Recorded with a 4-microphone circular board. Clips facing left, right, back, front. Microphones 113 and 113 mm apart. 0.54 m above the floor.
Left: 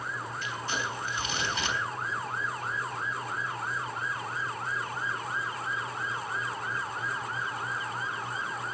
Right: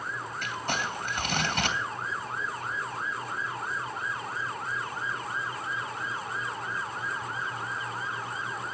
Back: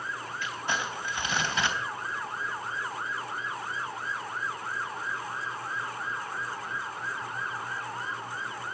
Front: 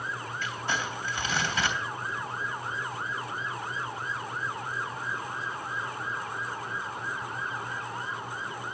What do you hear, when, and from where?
0.4 s crumpling: 110° right, 3 m